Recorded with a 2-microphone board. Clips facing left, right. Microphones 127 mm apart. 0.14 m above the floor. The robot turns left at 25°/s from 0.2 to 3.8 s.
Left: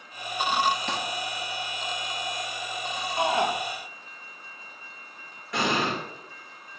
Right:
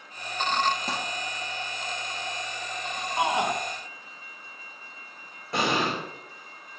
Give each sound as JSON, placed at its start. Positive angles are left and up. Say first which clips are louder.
{"t": 0.9, "sound": "crumpling", "louder": "left 1 dB", "side_deg": -40, "distance_m": 1.9}
{"t": 3.2, "sound": "a shout", "louder": "left 1 dB", "side_deg": -20, "distance_m": 1.1}
{"t": 5.5, "sound": "an explosion", "louder": "even", "side_deg": -30, "distance_m": 4.0}